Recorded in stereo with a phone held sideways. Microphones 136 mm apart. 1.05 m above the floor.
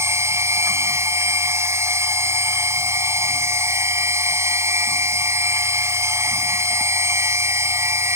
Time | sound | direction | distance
0.0 | a machine running | 20° right (ahead or behind) | ?